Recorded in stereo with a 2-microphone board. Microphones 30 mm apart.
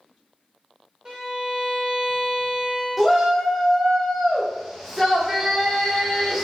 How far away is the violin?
About 1.3 m.